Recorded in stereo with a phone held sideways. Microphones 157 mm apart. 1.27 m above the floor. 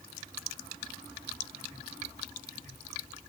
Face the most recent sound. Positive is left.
No sound to turn to.